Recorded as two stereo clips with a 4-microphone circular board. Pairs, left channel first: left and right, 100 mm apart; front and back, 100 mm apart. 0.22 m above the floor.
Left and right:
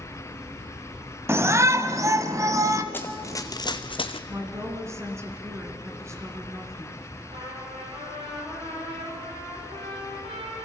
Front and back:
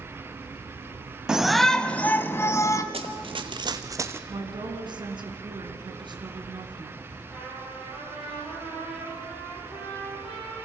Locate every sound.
1.3 s a shout: 110° right, 1.0 m; by 2.8 s 45° right, 1.4 m
2.9 s running footsteps: 160° left, 1.0 m; by 4.2 s 110° left, 0.9 m
4.3 s a woman speaking: 150° right, 2.5 m
7.3 s a trumpet: 100° right, 8 m